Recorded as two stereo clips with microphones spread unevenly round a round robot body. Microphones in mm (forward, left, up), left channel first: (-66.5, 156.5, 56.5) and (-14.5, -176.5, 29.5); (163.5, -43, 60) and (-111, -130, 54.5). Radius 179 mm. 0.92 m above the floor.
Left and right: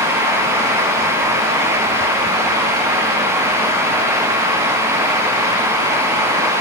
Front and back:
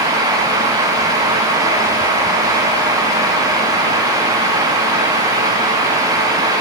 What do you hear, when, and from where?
Only background noise.